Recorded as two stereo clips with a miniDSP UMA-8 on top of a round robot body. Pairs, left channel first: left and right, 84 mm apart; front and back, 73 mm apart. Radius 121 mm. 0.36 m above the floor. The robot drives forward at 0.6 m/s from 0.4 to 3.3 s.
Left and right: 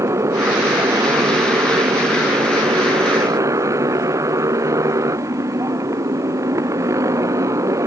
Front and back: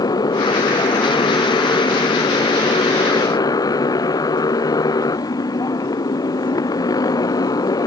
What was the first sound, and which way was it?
A motorcycle, 30° right.